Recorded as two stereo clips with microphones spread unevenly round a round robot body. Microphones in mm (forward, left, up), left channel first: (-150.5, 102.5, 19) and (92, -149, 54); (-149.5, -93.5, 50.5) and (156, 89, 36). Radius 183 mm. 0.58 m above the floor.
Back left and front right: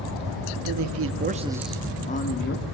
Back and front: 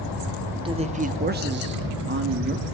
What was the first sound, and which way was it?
A man speaking, 40° right.